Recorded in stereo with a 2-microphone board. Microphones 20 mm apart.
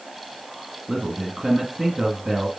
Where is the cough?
No cough in this recording.